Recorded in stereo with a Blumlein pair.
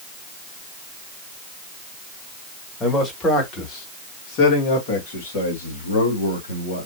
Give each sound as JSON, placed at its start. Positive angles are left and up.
{"t": 2.8, "sound": "a man speaking", "azimuth_deg": 10, "distance_m": 1.8}